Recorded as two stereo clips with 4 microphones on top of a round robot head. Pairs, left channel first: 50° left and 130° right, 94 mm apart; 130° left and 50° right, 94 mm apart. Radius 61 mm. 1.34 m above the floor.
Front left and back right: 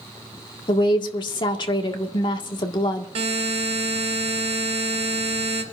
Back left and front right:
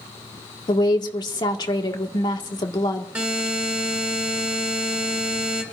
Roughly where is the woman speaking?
Left.